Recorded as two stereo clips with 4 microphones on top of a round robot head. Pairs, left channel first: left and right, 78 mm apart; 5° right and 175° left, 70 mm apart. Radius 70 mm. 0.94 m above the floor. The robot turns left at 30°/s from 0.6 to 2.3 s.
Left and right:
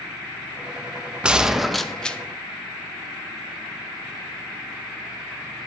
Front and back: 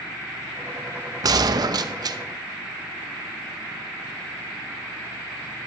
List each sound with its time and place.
1.2 s a gunshot: 165° right, 0.8 m; by 2.2 s 165° left, 0.8 m